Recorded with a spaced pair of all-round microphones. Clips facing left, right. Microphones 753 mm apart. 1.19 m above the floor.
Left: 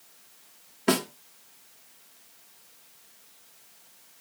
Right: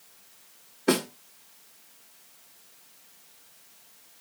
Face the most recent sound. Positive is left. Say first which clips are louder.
# right 1 dB
turn(degrees=35)  # may be behind; listen again after turning